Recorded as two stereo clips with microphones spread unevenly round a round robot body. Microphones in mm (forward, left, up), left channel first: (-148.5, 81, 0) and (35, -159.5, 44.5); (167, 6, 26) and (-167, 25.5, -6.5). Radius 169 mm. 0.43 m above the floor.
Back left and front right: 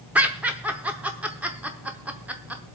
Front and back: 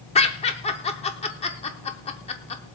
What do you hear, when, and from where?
0.1 s laughter: 50° left, 0.7 m